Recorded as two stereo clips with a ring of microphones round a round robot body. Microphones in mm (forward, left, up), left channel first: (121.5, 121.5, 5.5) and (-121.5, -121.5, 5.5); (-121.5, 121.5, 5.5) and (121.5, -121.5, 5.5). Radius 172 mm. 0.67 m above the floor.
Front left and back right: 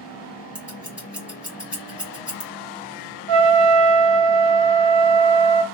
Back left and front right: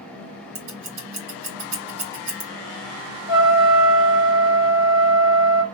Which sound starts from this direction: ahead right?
Scissors, at 0.6 s.